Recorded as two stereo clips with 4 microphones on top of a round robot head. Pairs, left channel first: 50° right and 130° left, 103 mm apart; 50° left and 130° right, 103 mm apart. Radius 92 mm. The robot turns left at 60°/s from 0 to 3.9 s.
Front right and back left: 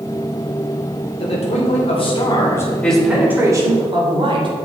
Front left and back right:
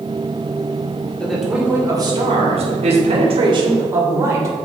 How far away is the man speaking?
About 3 m.